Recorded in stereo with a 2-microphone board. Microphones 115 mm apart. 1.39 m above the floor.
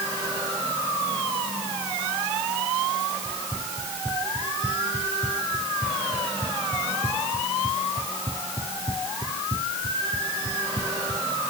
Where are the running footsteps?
Centre (ahead or behind); by 11.3 s 45° right (ahead or behind).